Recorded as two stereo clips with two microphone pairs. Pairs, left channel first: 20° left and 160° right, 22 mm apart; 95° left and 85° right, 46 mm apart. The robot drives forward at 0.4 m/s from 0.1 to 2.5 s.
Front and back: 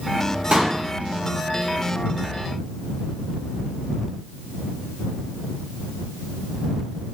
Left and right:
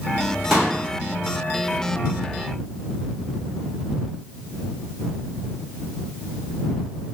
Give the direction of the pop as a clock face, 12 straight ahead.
6 o'clock.